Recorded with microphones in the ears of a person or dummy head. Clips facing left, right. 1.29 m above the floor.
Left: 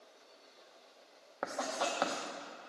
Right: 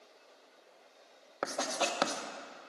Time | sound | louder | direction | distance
1.4 | writing | right 2 dB | 40° right (ahead or behind) | 0.7 m